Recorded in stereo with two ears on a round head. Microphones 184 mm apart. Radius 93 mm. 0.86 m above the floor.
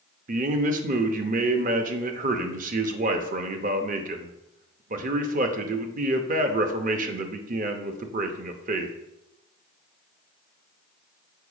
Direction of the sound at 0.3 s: 40° right (ahead or behind).